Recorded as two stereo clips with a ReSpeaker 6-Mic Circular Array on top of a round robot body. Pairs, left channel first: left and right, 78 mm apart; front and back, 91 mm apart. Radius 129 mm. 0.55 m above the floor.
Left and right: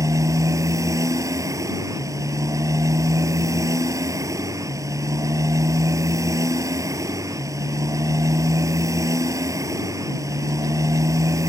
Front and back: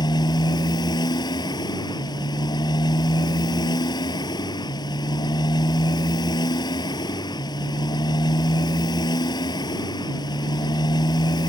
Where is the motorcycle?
45° right.